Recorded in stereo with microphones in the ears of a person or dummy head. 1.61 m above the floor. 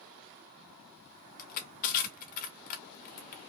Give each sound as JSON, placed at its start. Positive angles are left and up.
{"t": 1.4, "sound": "crushing", "side_deg": 50, "distance_m": 1.1}